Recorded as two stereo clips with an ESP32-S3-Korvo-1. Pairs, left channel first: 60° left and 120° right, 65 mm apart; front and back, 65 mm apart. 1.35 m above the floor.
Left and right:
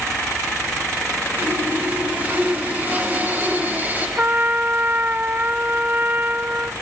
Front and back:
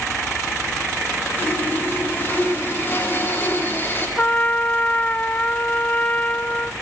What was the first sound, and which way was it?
Sawing, 55° right.